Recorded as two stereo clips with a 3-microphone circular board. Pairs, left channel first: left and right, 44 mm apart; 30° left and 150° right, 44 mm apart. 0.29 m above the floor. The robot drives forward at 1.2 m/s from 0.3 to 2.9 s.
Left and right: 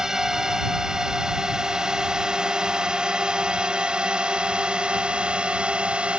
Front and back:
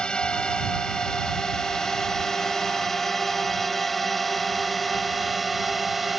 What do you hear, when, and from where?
0.0 s a drone: 20° right; by 6.2 s 65° right